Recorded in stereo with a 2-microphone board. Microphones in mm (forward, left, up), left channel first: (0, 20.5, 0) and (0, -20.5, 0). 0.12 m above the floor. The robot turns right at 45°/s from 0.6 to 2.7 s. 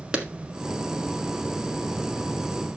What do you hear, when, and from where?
0.1 s a clap: 25° right (ahead or behind), 1.4 m